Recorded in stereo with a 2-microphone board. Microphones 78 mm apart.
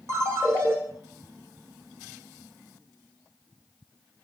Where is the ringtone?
40° right (ahead or behind), 0.9 m.